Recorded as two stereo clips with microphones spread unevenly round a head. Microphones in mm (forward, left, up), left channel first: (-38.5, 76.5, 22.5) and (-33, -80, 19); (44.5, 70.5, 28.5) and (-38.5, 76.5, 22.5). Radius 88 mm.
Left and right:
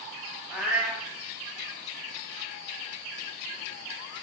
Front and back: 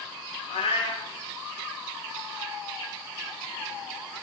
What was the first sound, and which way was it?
A cat meowing, straight ahead.